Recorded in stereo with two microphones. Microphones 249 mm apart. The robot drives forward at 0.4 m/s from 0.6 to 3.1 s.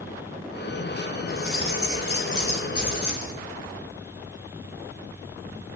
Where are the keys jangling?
55° left (ahead or behind), 3.5 m; by 3.3 s 65° left (ahead or behind), 3 m.